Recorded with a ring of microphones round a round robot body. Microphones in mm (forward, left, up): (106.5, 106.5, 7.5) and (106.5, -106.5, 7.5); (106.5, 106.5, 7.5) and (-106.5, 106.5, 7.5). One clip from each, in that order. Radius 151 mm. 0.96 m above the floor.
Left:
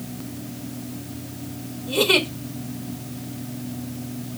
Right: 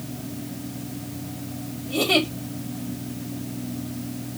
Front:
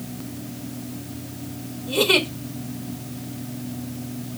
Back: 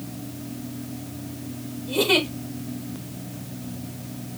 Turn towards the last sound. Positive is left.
turn(degrees=75)